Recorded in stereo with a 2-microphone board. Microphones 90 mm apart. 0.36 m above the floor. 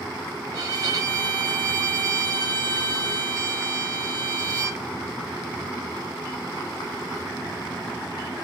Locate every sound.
0.5 s a violin: 45° right (ahead or behind), 0.9 m